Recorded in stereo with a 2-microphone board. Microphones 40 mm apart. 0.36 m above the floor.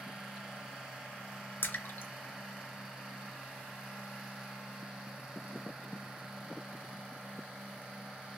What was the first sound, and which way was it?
A splash, 60° left (ahead or behind).